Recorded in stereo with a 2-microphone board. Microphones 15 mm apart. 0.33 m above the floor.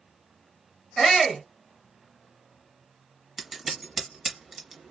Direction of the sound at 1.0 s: 20° left (ahead or behind).